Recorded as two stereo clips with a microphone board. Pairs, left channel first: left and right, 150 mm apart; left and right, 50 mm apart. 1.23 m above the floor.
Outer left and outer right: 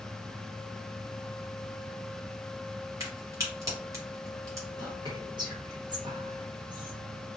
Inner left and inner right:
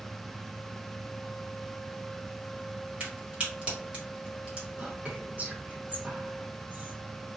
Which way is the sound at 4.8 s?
30° right (ahead or behind).